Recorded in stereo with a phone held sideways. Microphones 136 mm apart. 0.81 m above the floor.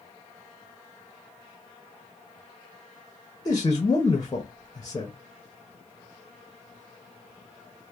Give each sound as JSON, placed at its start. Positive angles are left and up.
{"t": 3.5, "sound": "a man speaking", "side_deg": 30, "distance_m": 0.6}